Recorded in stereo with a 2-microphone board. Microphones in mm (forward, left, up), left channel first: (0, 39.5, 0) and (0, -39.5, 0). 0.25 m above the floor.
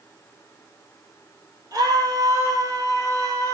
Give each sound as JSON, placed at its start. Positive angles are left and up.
{"t": 1.7, "sound": "a scream", "side_deg": -45, "distance_m": 7.5}